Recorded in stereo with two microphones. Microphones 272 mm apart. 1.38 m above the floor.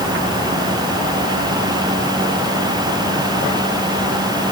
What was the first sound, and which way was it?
Only background noise.